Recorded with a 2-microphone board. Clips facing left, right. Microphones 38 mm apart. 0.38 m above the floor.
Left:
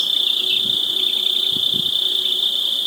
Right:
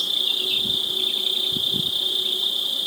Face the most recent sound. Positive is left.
turn(degrees=80)